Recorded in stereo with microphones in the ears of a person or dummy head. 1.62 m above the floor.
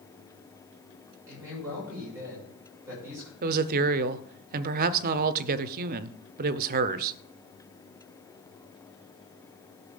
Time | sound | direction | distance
1.3 | a man speaking | 15° right (ahead or behind) | 7.5 m
3.4 | a woman speaking | 45° right (ahead or behind) | 0.7 m